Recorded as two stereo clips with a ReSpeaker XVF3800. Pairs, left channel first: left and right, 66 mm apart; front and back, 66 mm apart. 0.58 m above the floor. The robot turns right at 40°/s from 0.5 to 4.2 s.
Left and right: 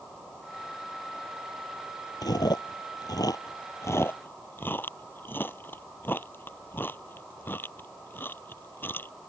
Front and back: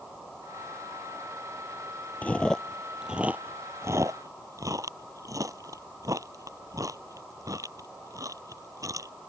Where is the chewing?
70° left; by 9.1 s 145° left.